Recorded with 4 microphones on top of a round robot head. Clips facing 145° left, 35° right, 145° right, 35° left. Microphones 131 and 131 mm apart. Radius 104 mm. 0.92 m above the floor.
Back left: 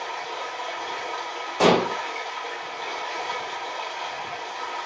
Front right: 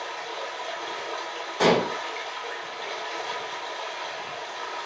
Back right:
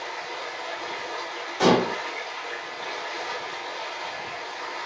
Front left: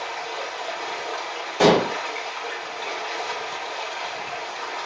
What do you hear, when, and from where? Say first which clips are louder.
0.0 s running water: back left 2 dB, front left 4 dB; 55° left, 3 m
1.6 s dishes clattering: back left 2 dB, front left 3 dB; 70° left, 3 m